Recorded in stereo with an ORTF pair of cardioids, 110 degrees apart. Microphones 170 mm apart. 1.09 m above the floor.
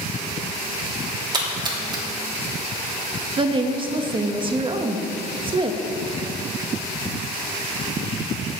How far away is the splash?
About 2.5 m.